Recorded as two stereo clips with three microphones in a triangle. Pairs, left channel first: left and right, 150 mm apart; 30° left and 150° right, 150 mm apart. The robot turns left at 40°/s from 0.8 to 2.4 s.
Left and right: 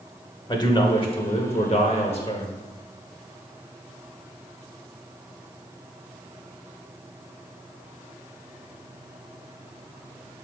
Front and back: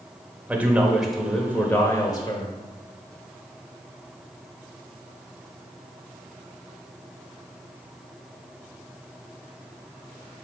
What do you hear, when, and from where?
0.5 s a man speaking: 135° left, 1.1 m; by 2.5 s 70° left, 1.1 m